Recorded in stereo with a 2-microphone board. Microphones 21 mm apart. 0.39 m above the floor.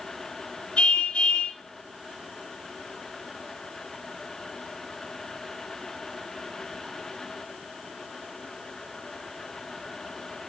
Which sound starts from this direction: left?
A car horn, at 0.8 s.